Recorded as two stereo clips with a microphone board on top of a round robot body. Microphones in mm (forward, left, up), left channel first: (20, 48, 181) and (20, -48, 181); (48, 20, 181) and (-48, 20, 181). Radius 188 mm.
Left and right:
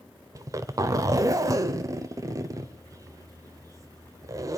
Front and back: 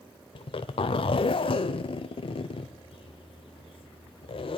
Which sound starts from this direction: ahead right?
A zipper, at 0.3 s.